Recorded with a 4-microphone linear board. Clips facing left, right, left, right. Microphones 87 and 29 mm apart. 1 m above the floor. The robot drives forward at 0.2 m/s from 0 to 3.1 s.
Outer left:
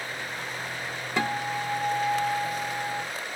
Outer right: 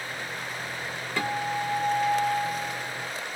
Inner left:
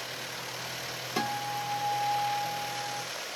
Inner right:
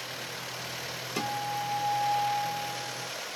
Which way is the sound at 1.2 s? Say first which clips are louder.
Even, even; 20° left (ahead or behind).